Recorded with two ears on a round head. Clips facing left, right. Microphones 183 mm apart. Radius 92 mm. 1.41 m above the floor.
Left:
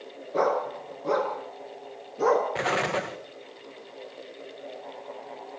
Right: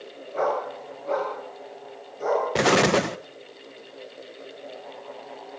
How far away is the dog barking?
About 5 m.